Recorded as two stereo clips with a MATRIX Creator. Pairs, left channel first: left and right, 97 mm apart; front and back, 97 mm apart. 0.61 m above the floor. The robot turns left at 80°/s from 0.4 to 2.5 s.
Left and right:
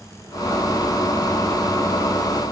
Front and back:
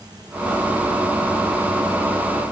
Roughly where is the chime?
No chime in this recording.